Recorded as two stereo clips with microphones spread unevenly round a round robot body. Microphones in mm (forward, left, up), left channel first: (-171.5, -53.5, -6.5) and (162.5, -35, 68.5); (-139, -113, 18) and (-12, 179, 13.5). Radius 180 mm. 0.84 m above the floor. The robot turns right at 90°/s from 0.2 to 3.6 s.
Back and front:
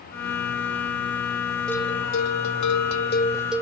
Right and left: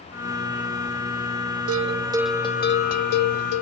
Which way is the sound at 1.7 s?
105° left.